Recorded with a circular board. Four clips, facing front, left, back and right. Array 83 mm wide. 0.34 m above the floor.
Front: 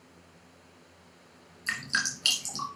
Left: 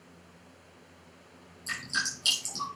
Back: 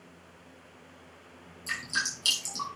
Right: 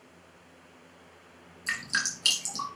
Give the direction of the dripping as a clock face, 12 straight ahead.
1 o'clock.